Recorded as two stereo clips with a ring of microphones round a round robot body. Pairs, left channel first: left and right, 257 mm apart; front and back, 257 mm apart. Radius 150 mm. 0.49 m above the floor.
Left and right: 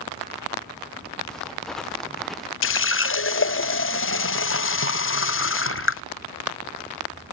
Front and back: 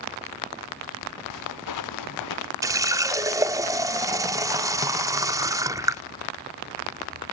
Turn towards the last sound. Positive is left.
turn(degrees=105)